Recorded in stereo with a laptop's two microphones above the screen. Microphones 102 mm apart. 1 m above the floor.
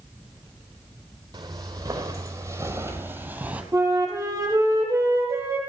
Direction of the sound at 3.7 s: 30° right (ahead or behind).